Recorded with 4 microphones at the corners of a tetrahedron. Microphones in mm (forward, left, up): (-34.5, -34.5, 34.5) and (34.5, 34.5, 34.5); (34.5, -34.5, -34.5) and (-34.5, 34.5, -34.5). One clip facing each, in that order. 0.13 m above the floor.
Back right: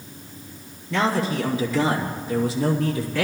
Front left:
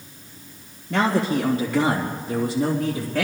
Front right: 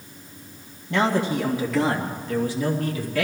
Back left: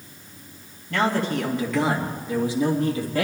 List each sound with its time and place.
0.9 s a man speaking: 20° left, 2.5 m; by 3.2 s 80° left, 3 m